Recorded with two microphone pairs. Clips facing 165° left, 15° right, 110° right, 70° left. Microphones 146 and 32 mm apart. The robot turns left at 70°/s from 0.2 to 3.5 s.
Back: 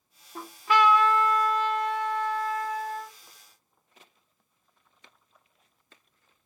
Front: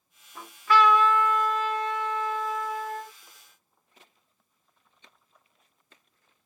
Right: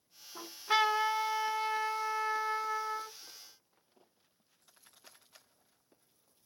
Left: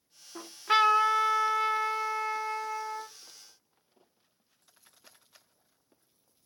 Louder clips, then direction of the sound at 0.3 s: Front 1 dB, left 5 dB; 120° left.